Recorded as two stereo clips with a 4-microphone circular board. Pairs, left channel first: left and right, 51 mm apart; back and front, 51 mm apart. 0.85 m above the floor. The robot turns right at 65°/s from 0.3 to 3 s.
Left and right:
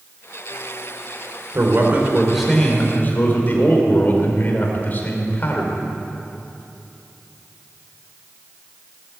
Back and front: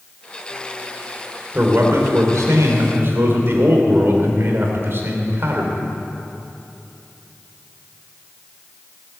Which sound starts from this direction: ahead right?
A man speaking, at 1.5 s.